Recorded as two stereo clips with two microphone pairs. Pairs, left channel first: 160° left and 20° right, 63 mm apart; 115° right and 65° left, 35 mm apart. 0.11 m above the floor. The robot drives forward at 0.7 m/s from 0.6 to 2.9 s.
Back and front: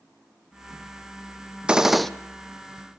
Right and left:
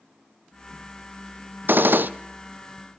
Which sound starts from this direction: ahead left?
A gunshot, at 1.7 s.